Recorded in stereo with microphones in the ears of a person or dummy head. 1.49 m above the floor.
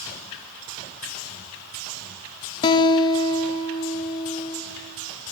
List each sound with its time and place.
2.6 s a guitar: 25° left (ahead or behind), 0.5 m